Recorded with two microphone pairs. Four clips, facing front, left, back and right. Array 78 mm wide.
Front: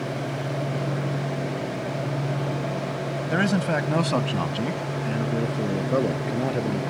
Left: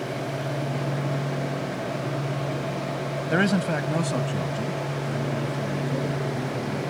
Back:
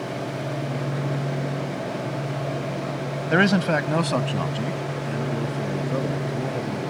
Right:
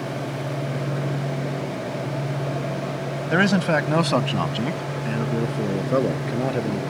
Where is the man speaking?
155° right; by 6.8 s 65° right.